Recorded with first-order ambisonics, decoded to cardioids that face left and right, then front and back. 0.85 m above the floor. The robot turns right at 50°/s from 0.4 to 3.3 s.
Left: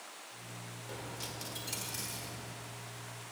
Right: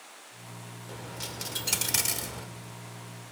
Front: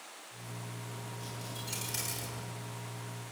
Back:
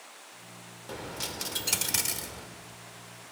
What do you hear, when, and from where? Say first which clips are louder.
0.9 s a dropped coin: right 4 dB, back 12 dB; straight behind, 1.2 m; by 2.5 s 100° right, 1.2 m